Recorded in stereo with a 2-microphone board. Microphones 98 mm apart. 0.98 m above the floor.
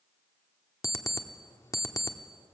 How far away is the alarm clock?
About 1.0 m.